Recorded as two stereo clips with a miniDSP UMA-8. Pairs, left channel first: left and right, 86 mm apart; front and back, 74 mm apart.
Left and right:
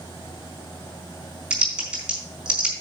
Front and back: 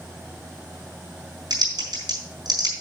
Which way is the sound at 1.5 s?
170° right.